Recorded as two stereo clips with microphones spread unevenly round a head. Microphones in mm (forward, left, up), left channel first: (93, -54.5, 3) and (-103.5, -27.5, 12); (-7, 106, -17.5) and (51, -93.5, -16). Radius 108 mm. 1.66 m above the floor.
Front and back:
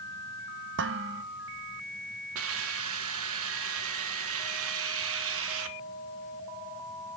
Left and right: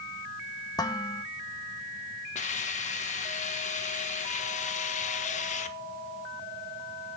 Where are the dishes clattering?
Straight behind, 1.4 m.